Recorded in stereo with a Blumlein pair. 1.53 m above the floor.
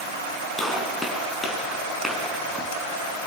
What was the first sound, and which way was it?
A gunshot, 5° left.